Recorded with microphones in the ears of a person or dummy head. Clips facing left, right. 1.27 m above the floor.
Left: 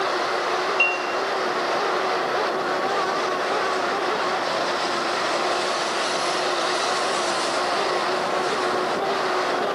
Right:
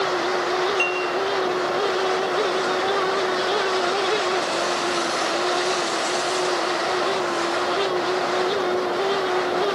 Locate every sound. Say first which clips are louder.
0.8 s dishes clattering: right 2 dB; 10° right (ahead or behind), 4.5 m